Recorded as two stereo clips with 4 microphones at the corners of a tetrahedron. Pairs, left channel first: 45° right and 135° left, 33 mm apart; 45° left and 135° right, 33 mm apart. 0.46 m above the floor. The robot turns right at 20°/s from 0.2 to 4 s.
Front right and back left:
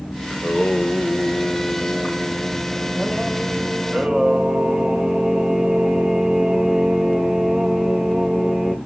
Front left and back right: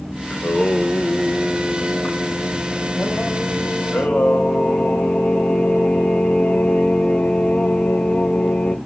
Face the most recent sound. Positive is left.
turn(degrees=70)